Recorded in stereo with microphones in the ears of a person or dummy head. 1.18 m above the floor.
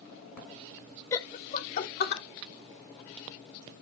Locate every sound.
1.1 s laughter: 15° left (ahead or behind), 0.7 m; by 2.2 s 55° left (ahead or behind), 1.9 m